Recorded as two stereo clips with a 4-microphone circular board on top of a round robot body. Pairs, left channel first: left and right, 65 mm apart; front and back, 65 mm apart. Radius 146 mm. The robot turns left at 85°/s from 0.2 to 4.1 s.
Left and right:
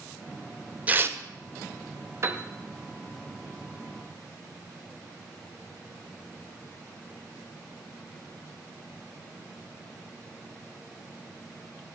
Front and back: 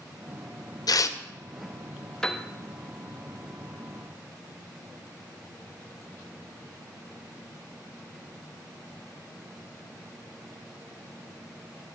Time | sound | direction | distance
0.9 | tearing paper | 20° right | 0.6 m
2.2 | a piano | 75° right | 0.9 m